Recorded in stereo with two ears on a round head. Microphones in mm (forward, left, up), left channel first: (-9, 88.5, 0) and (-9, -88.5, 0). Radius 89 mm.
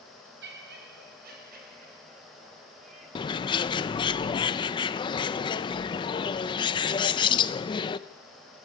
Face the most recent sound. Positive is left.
turn(degrees=25)  # may be behind; listen again after turning